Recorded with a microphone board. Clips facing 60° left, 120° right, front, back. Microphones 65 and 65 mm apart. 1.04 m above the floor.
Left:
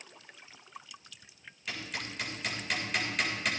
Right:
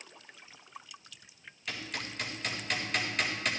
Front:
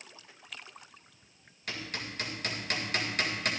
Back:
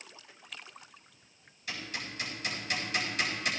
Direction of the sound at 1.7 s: 30° right.